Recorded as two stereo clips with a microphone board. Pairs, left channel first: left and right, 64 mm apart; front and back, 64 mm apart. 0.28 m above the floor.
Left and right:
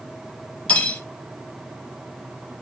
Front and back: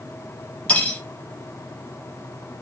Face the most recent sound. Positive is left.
turn(degrees=45)